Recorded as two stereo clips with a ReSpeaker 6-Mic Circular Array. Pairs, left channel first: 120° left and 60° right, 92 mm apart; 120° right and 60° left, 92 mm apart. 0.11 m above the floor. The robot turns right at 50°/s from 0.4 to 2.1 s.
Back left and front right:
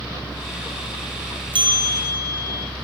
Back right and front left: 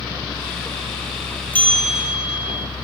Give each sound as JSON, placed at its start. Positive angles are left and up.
{"t": 1.5, "sound": "a bell", "azimuth_deg": -50, "distance_m": 1.6}